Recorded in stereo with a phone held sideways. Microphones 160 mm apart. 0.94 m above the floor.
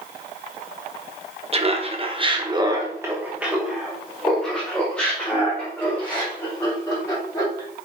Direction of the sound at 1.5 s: 35° right (ahead or behind).